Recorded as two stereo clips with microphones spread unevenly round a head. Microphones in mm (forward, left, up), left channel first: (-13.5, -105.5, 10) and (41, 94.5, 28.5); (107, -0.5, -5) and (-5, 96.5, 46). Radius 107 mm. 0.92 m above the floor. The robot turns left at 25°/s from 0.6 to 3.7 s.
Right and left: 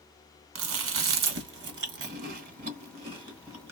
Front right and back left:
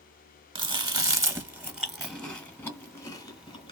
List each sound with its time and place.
0.6 s chewing: 75° left, 1.5 m; by 3.7 s 5° right, 1.5 m